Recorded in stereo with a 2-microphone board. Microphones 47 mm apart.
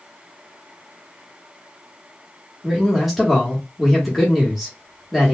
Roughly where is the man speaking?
Centre.